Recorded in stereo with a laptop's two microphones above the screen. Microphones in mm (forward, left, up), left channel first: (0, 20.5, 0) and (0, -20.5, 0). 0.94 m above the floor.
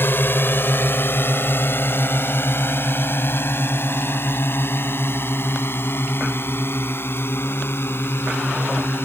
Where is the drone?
60° left (ahead or behind); by 9.1 s 65° left (ahead or behind).